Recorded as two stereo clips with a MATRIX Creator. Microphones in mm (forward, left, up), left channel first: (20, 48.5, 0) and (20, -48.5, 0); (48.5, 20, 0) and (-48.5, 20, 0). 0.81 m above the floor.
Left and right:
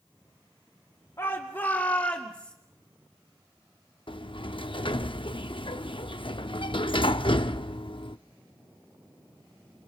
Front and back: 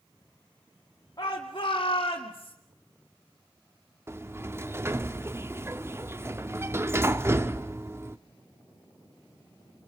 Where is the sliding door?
115° left, 0.6 m.